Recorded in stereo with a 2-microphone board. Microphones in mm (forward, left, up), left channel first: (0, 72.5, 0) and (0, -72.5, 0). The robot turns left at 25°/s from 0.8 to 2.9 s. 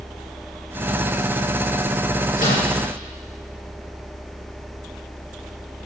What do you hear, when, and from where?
2.4 s a microwave: 70° left (ahead or behind), 3.5 m; by 2.7 s 60° left (ahead or behind), 3.5 m